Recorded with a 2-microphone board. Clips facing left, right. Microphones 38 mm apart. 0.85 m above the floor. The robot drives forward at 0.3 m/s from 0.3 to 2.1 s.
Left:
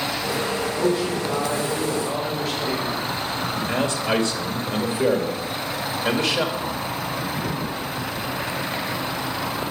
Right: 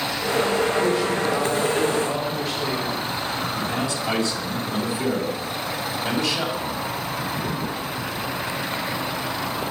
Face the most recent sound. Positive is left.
turn(degrees=45)  # may be behind; listen again after turning